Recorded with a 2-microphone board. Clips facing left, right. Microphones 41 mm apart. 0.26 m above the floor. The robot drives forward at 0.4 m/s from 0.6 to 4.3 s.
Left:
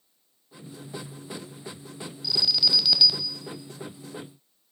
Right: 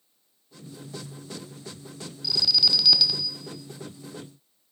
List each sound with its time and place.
2.2 s an alarm: 10° left (ahead or behind), 0.8 m; by 3.3 s 5° left (ahead or behind), 1.0 m